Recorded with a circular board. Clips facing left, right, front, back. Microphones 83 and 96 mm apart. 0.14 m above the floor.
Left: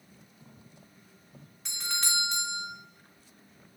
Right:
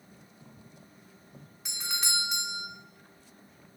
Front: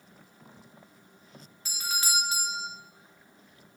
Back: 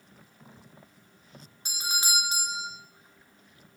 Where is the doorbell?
165° right, 2 m.